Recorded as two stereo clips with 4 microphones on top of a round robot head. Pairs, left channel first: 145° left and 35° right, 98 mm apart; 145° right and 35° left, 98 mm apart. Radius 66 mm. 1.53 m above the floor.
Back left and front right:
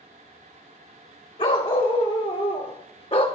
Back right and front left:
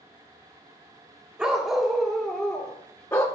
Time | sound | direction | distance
1.4 | a dog barking | 115° left | 1.9 m